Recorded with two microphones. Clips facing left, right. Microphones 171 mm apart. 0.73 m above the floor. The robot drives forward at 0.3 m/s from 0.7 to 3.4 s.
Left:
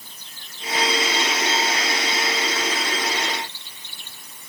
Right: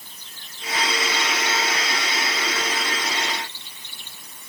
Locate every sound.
Only background noise.